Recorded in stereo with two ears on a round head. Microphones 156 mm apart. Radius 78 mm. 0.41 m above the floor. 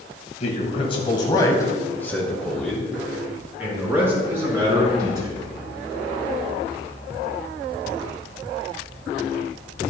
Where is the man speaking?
40° left (ahead or behind), 2.5 m; by 5.5 s 25° right (ahead or behind), 4.5 m.